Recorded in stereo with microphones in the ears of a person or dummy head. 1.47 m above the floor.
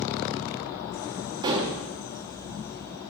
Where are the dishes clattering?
15° right (ahead or behind), 0.6 m.